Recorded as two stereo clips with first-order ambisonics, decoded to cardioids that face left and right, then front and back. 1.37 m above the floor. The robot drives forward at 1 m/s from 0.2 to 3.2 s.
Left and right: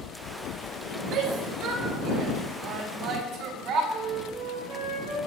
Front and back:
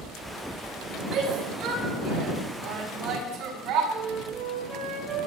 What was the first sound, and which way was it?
A shout, 115° right.